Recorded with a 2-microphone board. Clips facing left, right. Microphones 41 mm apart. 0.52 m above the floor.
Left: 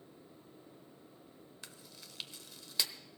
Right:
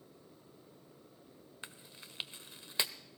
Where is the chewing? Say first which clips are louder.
Right 5 dB; 30° right (ahead or behind), 0.7 m.